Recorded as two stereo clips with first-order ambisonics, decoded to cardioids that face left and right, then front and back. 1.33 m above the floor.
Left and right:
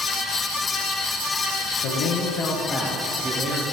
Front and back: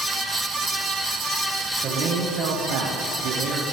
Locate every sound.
1.8 s a man speaking: 120° left, 0.8 m; by 3.6 s 140° right, 0.8 m